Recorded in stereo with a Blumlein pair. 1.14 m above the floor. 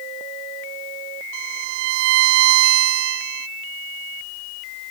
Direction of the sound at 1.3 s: 50° right.